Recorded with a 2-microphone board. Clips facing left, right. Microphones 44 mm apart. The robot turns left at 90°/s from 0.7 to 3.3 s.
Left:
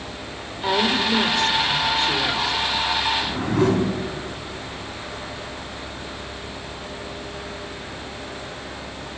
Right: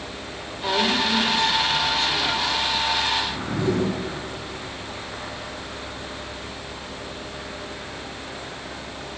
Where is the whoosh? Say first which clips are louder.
Left 4 dB; 60° left (ahead or behind), 4 m; by 3.9 s 65° left (ahead or behind), 4 m.